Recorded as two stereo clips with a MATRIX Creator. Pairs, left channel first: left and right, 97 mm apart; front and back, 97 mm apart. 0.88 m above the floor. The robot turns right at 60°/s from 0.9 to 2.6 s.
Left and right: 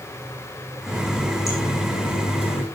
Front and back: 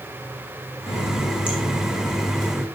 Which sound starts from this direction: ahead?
A running tap, at 0.9 s.